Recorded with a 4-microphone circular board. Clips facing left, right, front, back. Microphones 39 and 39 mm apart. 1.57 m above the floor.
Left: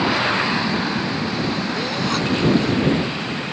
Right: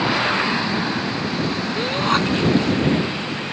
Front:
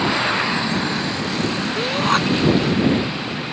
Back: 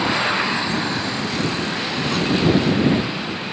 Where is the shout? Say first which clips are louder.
Right 3 dB, front 4 dB; 40° right.